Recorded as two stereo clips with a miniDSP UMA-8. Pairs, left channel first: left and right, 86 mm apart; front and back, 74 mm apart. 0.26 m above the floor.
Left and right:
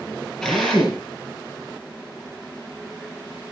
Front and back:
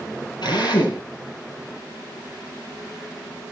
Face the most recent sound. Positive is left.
turn(degrees=10)